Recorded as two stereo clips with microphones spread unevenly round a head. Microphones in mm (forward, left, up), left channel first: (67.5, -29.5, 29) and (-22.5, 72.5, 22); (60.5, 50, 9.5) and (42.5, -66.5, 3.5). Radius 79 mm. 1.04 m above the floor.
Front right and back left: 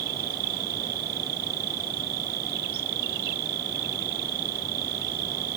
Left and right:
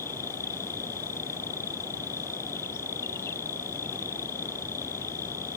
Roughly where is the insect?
Behind left.